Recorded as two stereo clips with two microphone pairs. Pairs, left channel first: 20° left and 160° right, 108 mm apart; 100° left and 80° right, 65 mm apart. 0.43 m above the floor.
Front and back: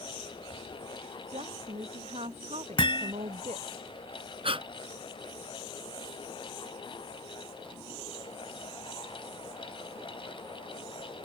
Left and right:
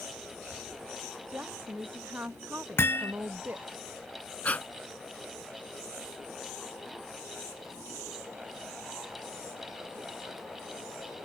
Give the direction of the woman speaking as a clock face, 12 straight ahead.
5 o'clock.